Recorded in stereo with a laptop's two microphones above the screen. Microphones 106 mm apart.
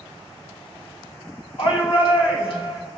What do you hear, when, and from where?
1.6 s a shout: 65° left (ahead or behind), 3 m